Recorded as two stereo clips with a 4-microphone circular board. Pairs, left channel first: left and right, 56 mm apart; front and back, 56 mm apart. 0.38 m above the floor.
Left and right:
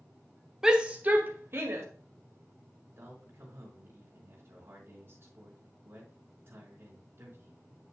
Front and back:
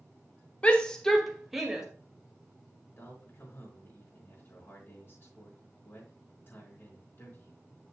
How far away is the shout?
About 1.4 m.